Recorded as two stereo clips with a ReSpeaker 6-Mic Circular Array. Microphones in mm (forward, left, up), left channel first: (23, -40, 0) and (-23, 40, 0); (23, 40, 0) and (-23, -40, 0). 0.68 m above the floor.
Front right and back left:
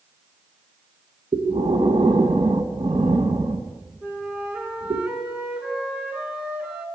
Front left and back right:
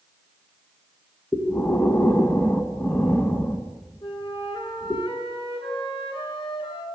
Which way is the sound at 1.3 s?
130° left.